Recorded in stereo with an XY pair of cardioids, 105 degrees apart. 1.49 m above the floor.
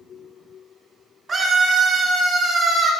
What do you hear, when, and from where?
1.3 s a scream: 45° right, 3 m; by 2.9 s 50° right, 4 m